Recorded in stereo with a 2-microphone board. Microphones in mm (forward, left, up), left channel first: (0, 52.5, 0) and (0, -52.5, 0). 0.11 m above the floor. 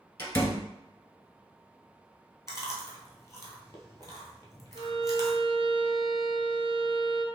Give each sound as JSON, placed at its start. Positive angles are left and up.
{"t": 0.2, "sound": "a door slam", "side_deg": 20, "distance_m": 0.9}
{"t": 2.5, "sound": "chewing", "side_deg": 30, "distance_m": 1.1}
{"t": 4.8, "sound": "a violin", "side_deg": 50, "distance_m": 0.6}